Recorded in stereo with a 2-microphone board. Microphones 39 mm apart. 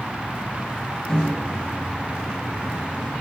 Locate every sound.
1.1 s a microwave: 20° left (ahead or behind), 0.7 m